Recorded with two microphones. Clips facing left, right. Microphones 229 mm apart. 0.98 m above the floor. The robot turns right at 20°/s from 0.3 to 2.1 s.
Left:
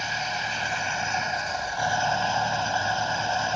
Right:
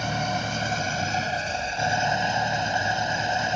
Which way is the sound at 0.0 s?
55° right.